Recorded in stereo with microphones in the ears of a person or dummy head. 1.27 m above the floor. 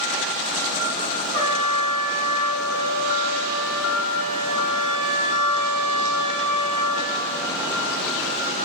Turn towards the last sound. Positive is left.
turn(degrees=35)  # may be behind; listen again after turning